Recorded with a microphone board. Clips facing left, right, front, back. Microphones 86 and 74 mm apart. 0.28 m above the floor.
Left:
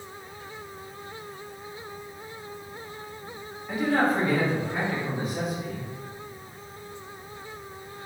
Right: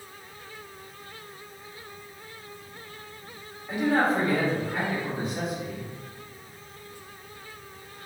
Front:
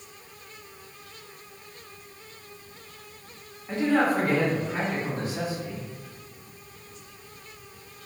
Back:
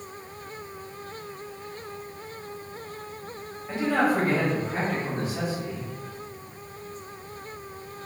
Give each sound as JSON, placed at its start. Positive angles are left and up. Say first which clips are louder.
{"t": 3.7, "sound": "a man speaking", "louder": "even, front 1 dB", "azimuth_deg": -115, "distance_m": 1.2}